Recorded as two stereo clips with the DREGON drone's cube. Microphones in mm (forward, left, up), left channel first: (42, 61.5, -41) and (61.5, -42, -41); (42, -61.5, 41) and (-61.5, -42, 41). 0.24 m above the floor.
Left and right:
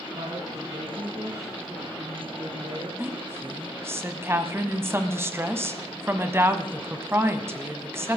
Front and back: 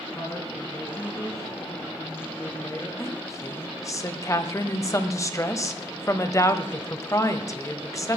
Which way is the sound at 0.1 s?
65° right.